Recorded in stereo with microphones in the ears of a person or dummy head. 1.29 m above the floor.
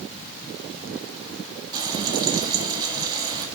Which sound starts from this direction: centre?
Frying, at 1.7 s.